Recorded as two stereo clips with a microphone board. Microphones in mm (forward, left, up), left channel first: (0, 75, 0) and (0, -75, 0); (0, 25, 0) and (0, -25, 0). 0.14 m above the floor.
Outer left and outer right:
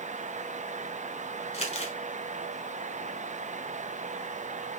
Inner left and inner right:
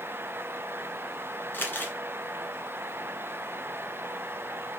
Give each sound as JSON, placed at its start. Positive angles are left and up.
{"t": 1.5, "sound": "crumpling", "side_deg": 45, "distance_m": 1.3}